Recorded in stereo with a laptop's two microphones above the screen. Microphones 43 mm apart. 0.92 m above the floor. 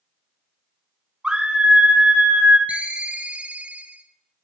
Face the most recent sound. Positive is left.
turn(degrees=-30)  # may be behind; listen again after turning